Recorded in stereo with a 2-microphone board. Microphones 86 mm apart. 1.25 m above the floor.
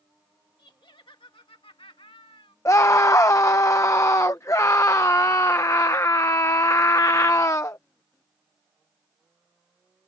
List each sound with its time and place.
0.6 s laughter: 60° left (ahead or behind); by 2.5 s 75° left (ahead or behind)
2.6 s a scream: 35° left (ahead or behind)